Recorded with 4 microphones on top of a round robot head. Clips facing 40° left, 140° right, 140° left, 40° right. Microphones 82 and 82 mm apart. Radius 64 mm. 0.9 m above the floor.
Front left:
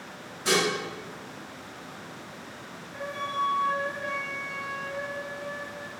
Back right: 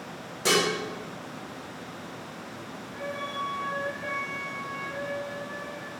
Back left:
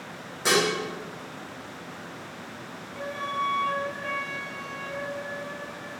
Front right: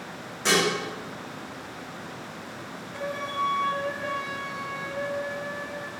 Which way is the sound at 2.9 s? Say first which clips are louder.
Front left 3 dB, even; 30° right.